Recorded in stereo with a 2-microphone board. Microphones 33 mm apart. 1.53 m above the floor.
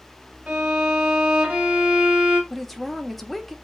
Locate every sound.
0.5 s a violin: 30° right (ahead or behind), 2 m
2.5 s a woman speaking: centre (ahead or behind), 0.5 m